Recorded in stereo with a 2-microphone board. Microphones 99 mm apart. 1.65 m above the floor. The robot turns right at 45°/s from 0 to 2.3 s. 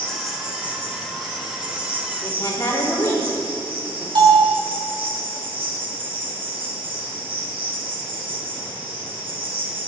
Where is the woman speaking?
25° left (ahead or behind), 3.5 m; by 4.0 s 30° left (ahead or behind), 3.5 m.